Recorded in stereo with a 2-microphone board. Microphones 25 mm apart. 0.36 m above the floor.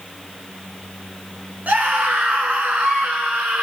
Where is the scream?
75° right (ahead or behind), 4 m.